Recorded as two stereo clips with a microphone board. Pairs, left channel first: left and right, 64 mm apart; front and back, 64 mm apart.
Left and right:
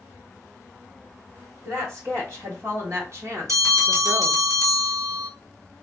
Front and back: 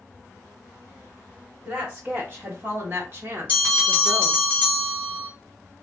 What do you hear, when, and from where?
1.6 s a woman speaking: 120° right, 2.5 m; by 4.4 s 155° right, 0.7 m
3.5 s a bell: 120° right, 2.5 m